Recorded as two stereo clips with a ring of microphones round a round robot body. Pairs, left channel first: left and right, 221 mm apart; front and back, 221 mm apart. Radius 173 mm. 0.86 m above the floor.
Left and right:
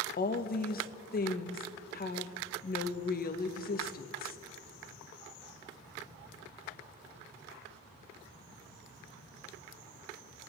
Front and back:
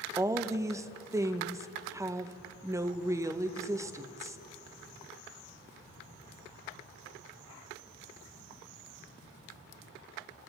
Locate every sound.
0.2 s a woman speaking: 105° left, 0.8 m